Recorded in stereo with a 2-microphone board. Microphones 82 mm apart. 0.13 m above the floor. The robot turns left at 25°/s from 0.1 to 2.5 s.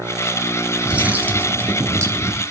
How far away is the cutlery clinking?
About 1.2 m.